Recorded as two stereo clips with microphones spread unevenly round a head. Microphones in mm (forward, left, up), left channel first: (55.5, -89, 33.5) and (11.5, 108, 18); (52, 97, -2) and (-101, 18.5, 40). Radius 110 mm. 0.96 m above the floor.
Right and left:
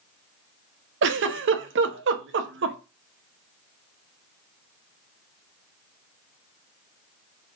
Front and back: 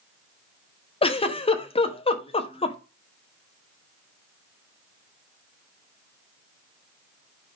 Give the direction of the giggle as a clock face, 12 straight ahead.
9 o'clock.